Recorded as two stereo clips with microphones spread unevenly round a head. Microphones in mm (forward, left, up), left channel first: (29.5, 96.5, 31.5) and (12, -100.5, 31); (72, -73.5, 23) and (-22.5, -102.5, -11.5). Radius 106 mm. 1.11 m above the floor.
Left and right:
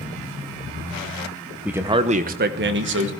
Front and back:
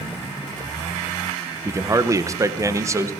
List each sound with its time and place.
1.6 s a man speaking: straight behind, 0.8 m; by 3.1 s 110° right, 1.6 m